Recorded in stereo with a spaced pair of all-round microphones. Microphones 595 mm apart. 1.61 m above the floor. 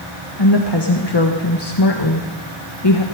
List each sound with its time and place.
0.4 s a woman speaking: 40° left (ahead or behind), 1.4 m